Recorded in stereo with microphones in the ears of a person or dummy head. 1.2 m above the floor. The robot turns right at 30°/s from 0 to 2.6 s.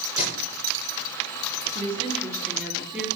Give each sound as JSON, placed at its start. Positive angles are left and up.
{"t": 0.2, "sound": "tape being pulled", "side_deg": 45, "distance_m": 4.0}
{"t": 1.8, "sound": "a woman speaking", "side_deg": -35, "distance_m": 3.0}